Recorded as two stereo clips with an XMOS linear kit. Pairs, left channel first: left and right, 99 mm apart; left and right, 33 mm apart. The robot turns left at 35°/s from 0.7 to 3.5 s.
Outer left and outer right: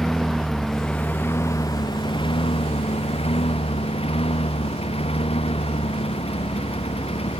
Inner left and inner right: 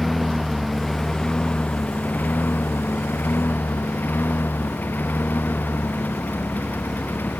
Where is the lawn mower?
175° left; by 7.4 s 80° left.